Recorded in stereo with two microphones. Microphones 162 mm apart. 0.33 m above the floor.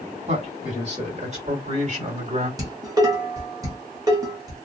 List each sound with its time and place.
0.3 s a man speaking: 45° right (ahead or behind), 1.7 m
2.6 s dishes clattering: 20° right (ahead or behind), 1.0 m